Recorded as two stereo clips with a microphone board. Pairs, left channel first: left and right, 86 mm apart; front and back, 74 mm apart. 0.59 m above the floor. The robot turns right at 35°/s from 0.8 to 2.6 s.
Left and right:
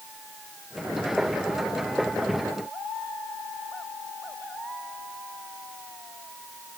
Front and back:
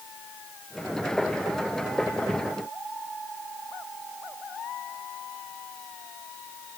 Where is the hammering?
No hammering in this recording.